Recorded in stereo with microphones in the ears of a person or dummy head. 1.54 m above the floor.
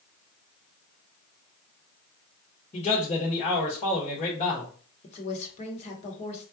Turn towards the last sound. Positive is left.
turn(degrees=40)  # may be behind; listen again after turning